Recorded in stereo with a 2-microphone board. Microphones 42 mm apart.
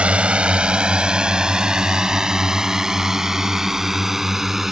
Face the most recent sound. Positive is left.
turn(degrees=-10)  # may be behind; listen again after turning